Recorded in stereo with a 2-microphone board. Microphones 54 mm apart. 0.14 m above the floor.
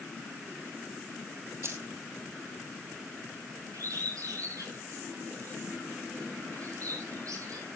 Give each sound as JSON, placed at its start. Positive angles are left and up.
{"t": 1.6, "sound": "keys jangling", "side_deg": -50, "distance_m": 2.5}
{"t": 3.7, "sound": "a bird", "side_deg": -75, "distance_m": 10.0}